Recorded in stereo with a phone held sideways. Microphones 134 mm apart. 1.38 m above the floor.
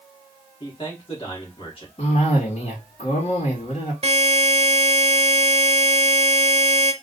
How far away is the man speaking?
About 2 m.